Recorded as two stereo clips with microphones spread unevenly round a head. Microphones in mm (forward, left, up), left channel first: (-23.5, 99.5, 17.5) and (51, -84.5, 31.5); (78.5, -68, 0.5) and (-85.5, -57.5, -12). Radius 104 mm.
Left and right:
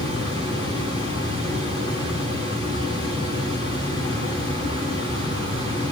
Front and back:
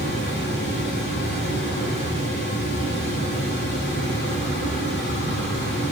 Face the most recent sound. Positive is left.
turn(degrees=-10)